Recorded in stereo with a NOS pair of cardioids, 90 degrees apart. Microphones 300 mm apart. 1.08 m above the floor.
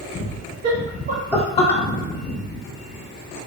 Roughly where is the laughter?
Ahead right.